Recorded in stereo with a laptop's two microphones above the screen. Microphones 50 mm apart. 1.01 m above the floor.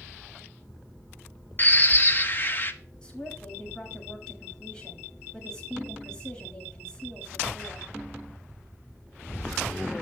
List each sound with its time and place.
1.6 s a bird: 40° left (ahead or behind), 0.7 m
3.0 s a woman speaking: 15° left (ahead or behind), 7 m